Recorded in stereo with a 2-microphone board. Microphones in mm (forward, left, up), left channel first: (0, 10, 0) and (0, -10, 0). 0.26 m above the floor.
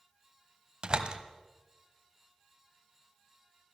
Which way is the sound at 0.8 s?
40° right (ahead or behind).